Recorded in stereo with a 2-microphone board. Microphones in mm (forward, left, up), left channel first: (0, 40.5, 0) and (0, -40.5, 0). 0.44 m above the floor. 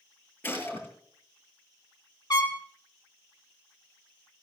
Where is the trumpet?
45° left (ahead or behind), 1.5 m.